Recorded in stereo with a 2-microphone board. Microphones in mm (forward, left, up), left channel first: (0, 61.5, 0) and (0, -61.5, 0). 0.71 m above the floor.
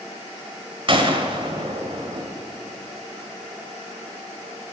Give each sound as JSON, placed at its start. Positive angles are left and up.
{"t": 0.9, "sound": "a gunshot", "side_deg": -45, "distance_m": 1.6}